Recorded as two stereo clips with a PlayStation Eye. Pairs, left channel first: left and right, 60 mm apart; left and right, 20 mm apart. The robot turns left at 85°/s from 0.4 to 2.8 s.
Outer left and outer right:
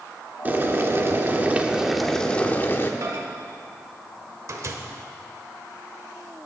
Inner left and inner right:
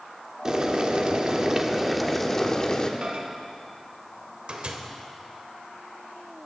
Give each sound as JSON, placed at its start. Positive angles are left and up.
{"t": 0.5, "sound": "boiling", "azimuth_deg": -50, "distance_m": 1.1}
{"t": 3.0, "sound": "a microwave", "side_deg": -60, "distance_m": 1.4}